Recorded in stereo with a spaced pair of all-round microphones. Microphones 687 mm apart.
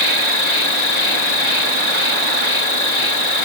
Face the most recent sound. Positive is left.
turn(degrees=70)  # may be behind; listen again after turning